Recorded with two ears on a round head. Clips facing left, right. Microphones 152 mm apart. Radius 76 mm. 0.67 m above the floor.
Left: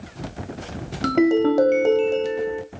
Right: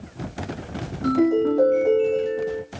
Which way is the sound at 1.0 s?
80° left.